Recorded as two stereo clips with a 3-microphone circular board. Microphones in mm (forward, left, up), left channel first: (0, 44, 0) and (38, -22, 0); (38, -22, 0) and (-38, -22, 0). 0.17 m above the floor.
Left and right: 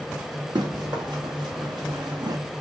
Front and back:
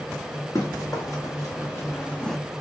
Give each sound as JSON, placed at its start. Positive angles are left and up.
{"t": 0.6, "sound": "running footsteps", "azimuth_deg": -45, "distance_m": 2.5}